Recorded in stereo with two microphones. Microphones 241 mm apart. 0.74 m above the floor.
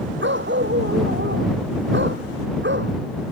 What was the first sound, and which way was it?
A dog barking, 50° right (ahead or behind).